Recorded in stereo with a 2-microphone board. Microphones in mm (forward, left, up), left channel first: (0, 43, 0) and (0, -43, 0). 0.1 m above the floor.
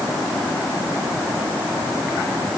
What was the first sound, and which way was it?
Only background noise.